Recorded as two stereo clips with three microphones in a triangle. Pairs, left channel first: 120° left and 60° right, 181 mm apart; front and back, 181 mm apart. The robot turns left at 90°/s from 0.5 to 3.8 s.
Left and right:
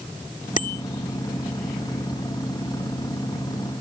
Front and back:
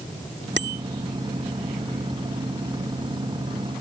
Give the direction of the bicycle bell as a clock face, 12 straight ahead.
6 o'clock.